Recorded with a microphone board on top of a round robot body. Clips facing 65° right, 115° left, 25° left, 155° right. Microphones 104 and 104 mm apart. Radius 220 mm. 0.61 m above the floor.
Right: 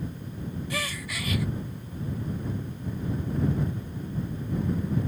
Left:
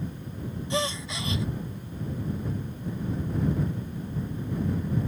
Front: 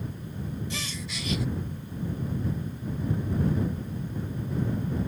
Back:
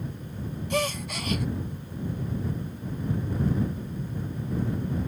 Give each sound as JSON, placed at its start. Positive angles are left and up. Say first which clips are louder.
{"t": 0.7, "sound": "a gasp", "louder": "left 4 dB, back 9 dB", "azimuth_deg": 175}